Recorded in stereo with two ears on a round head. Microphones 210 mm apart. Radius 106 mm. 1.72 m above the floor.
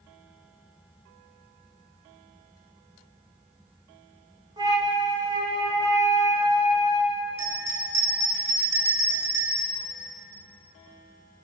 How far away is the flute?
About 2.5 m.